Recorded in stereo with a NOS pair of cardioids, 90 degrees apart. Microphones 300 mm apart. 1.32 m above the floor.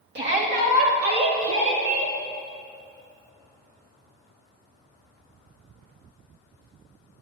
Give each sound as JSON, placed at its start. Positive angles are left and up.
{"t": 0.1, "sound": "a shout", "azimuth_deg": -35, "distance_m": 2.0}